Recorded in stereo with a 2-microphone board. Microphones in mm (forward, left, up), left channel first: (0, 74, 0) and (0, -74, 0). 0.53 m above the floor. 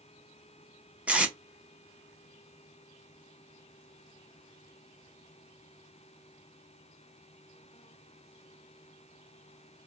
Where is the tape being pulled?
10° right (ahead or behind), 0.6 m.